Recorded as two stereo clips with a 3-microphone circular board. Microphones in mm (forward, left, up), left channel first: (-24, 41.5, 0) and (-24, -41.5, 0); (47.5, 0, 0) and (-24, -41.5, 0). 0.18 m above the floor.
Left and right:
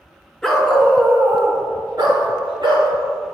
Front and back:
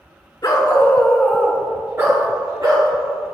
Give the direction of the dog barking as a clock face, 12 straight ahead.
12 o'clock.